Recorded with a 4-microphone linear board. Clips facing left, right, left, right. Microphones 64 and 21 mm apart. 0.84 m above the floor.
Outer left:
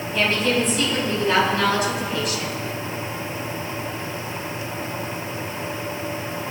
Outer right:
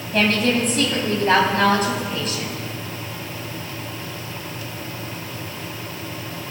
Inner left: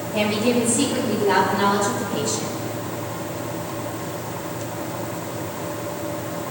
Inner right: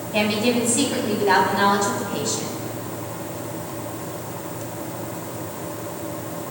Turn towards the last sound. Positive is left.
turn(degrees=-35)  # may be behind; listen again after turning